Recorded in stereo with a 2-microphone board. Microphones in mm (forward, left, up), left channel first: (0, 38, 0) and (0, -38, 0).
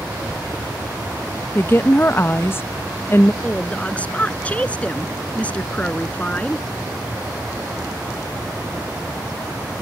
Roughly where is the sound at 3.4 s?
Centre.